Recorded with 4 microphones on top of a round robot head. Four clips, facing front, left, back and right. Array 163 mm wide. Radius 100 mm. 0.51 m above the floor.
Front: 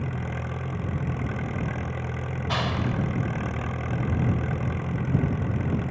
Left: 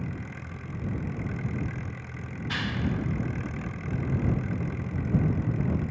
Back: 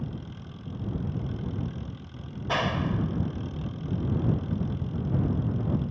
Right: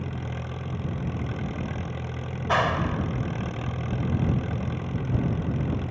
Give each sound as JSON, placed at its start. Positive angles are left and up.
{"t": 0.0, "sound": "an engine running", "azimuth_deg": -25}
{"t": 2.5, "sound": "a clap", "azimuth_deg": -110}